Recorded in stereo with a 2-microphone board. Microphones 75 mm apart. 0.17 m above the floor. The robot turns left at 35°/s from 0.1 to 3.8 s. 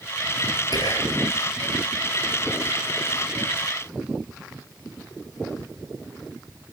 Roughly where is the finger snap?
No finger snap in this recording.